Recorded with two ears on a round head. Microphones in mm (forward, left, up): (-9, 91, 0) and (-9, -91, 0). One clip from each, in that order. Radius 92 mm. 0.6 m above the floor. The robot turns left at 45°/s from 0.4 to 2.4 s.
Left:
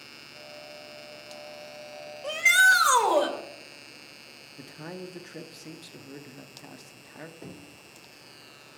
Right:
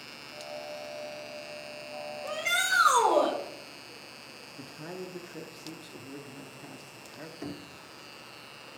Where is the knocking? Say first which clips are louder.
Right 4 dB; 40° right (ahead or behind), 0.9 m.